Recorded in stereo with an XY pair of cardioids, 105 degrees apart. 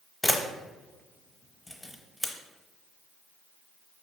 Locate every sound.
0.2 s a camera shutter: 10° left, 0.7 m